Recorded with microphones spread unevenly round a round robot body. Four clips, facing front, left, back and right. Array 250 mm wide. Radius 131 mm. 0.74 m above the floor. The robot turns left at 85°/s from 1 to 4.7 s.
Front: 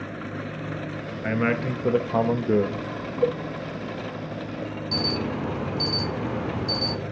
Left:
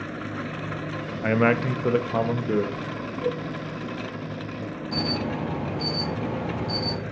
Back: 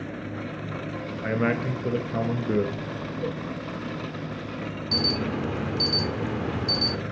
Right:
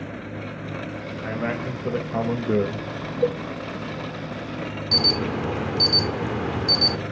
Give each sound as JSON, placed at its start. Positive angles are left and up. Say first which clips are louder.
{"t": 1.2, "sound": "a man speaking", "louder": "left 7 dB, front 1 dB", "azimuth_deg": 75, "distance_m": 0.8}
{"t": 3.2, "sound": "a cowbell", "louder": "right 5 dB, front 10 dB", "azimuth_deg": -45, "distance_m": 0.7}
{"t": 4.9, "sound": "an alarm", "louder": "right 2 dB, even", "azimuth_deg": -125, "distance_m": 1.4}